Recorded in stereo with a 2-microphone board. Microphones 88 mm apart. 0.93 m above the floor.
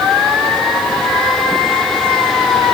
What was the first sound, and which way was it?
Only background noise.